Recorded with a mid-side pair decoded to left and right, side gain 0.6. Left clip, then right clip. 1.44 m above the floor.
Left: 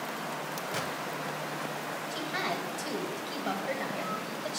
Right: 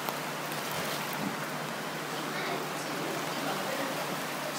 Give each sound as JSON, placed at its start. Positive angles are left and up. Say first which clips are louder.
{"t": 0.7, "sound": "a gunshot", "louder": "left 3 dB", "azimuth_deg": 35, "distance_m": 2.5}
{"t": 2.1, "sound": "a woman speaking", "louder": "left 2 dB", "azimuth_deg": 40, "distance_m": 2.5}